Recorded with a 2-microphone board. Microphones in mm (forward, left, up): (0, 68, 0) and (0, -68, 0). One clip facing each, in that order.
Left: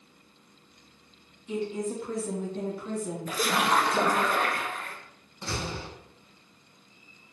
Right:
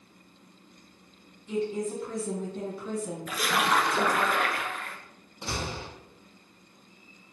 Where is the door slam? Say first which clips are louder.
Even; 20° right (ahead or behind), 1.2 m.